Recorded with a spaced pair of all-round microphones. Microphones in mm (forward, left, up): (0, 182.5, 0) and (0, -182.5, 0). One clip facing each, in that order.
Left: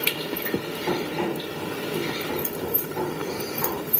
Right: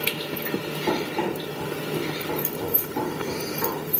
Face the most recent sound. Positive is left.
turn(degrees=-25)  # may be behind; listen again after turning